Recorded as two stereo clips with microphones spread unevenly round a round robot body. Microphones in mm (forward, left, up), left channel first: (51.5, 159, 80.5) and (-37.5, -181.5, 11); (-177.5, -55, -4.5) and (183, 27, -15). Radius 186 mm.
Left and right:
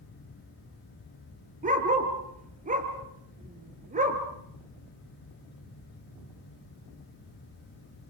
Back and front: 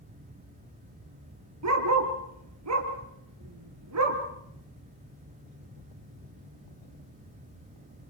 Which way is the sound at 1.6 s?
35° right.